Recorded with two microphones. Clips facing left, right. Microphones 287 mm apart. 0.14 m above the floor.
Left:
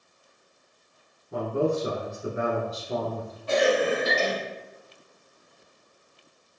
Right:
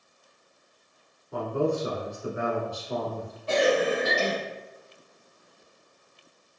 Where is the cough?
30° right (ahead or behind), 1.3 m.